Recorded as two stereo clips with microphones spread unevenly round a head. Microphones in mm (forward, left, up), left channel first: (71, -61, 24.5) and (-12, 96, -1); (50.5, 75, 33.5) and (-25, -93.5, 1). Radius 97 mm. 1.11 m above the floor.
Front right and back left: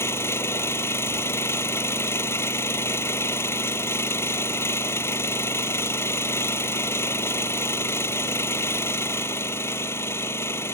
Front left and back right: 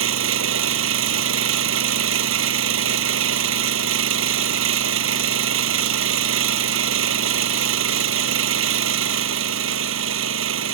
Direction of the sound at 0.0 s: 140° right.